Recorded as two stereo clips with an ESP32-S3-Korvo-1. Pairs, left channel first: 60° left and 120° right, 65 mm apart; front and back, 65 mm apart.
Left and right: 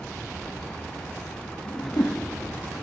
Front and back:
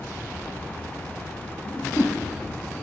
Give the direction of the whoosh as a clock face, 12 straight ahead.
11 o'clock.